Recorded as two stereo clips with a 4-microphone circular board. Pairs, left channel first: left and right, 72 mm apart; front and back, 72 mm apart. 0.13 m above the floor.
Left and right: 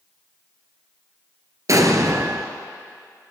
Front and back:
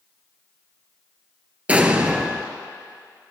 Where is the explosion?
115° right, 1.0 m.